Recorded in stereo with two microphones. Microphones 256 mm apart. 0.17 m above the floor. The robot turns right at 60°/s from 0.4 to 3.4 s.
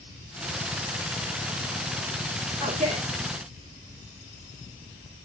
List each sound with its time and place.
2.6 s a man speaking: 20° right (ahead or behind), 1.9 m; by 3.1 s 30° right (ahead or behind), 1.9 m